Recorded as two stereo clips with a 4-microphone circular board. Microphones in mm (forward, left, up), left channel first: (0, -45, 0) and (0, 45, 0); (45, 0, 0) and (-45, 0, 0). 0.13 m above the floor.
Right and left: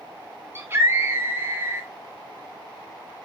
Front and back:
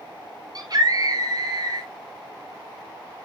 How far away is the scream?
About 2.5 m.